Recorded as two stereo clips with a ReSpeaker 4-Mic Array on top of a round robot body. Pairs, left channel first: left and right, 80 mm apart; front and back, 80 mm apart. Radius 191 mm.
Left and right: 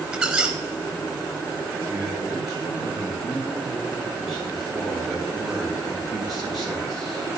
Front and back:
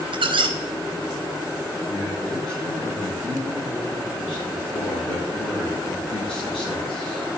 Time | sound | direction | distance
0.1 | a squeak | 170° right | 0.6 m
1.9 | a man speaking | straight ahead | 6 m